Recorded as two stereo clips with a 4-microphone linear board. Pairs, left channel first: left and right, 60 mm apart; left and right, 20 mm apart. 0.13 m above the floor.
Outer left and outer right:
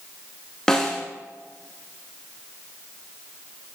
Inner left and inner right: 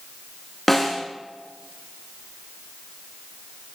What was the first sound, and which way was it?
A snare drum, 10° left (ahead or behind).